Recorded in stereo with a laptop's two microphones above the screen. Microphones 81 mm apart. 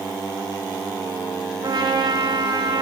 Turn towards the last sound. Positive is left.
turn(degrees=-60)  # may be behind; listen again after turning